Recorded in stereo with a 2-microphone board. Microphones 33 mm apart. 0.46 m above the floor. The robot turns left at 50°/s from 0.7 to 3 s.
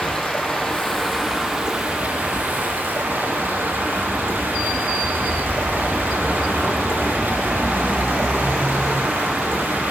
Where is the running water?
15° left, 4 m; by 9.9 s 100° right, 4 m.